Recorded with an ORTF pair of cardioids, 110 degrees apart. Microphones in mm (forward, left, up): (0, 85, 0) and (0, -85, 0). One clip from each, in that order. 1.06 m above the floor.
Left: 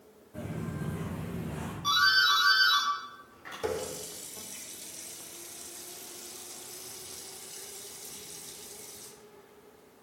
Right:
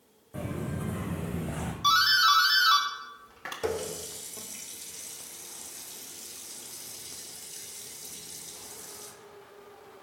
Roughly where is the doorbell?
Ahead right.